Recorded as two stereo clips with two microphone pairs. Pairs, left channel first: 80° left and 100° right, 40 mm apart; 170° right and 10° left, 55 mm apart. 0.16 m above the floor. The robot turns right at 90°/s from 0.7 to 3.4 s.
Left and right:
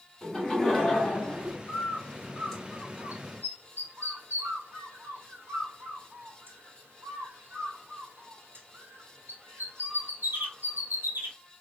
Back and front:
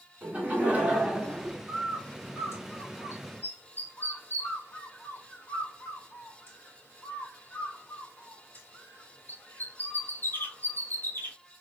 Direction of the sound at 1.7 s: 85° left.